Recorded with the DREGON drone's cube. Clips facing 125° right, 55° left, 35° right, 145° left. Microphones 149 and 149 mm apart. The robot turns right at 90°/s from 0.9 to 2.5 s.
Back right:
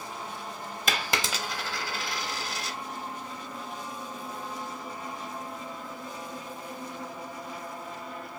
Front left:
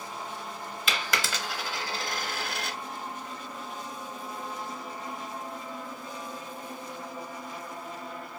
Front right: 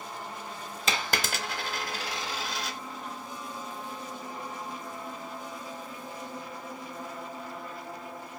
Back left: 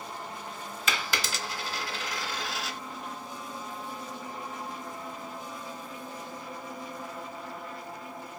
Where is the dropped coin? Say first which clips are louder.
Back right 1 dB, front right 2 dB; 85° right, 0.7 m; by 2.8 s 60° left, 0.7 m.